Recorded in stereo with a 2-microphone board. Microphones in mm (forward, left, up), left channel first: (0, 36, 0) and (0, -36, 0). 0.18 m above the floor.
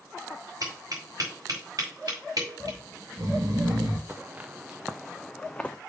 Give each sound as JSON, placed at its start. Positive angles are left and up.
{"t": 0.6, "sound": "tapping", "side_deg": -55, "distance_m": 5.0}
{"t": 2.6, "sound": "snoring", "side_deg": -65, "distance_m": 3.5}
{"t": 4.1, "sound": "footsteps", "side_deg": -25, "distance_m": 1.4}